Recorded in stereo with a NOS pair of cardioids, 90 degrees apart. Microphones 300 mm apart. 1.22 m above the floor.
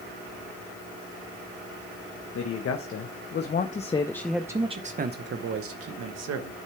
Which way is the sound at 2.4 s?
55° left.